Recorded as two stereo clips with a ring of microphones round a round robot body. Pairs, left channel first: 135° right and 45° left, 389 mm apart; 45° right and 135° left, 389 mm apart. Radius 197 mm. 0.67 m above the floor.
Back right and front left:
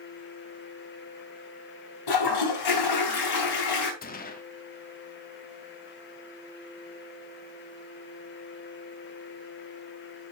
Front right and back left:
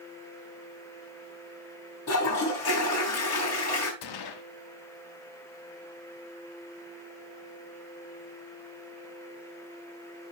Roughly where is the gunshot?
Right.